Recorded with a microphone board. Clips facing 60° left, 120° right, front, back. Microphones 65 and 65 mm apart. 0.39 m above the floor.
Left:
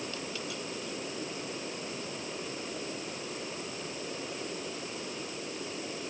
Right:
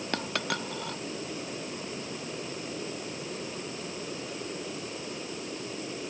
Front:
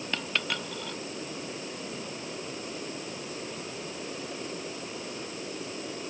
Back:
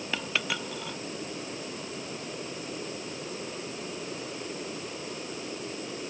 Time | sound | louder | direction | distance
0.1 | a dropped coin | right 6 dB, back 1 dB | 95° right | ?